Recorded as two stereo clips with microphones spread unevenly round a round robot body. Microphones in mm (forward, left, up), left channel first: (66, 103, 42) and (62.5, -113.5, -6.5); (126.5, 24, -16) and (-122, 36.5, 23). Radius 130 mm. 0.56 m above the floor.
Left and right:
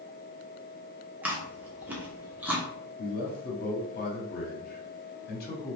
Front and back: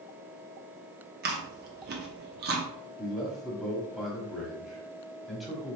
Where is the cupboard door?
No cupboard door in this recording.